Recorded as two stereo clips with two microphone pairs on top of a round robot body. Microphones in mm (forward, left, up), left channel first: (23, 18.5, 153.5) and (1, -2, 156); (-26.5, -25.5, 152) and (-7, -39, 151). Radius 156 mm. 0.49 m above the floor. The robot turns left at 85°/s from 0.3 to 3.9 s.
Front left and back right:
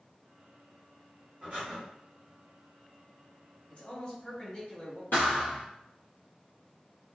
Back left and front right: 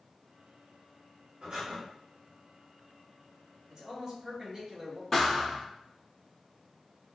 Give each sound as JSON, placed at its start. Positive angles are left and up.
{"t": 1.4, "sound": "breathing", "azimuth_deg": -80, "distance_m": 1.0}
{"t": 3.7, "sound": "a man speaking", "azimuth_deg": 25, "distance_m": 1.3}
{"t": 5.1, "sound": "a thud", "azimuth_deg": 70, "distance_m": 0.5}